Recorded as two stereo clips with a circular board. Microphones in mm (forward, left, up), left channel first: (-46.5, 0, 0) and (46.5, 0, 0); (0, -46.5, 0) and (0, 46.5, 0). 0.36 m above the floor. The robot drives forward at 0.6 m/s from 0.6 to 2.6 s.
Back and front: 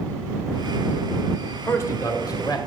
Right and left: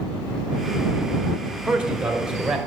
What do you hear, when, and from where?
1.7 s a man speaking: 160° left, 1.2 m; by 2.6 s 170° left, 1.5 m